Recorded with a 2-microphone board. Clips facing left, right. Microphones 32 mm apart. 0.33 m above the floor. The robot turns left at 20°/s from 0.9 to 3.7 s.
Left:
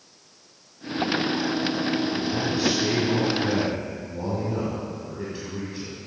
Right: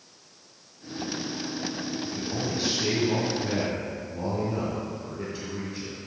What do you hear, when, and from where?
2.0 s a man speaking: 155° right, 2.0 m; by 6.0 s 170° left, 2.0 m